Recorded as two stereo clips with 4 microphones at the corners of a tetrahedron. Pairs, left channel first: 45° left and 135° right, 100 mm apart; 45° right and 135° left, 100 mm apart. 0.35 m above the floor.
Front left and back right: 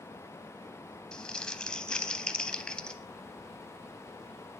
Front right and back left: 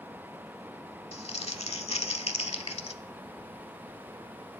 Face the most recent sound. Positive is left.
turn(degrees=-35)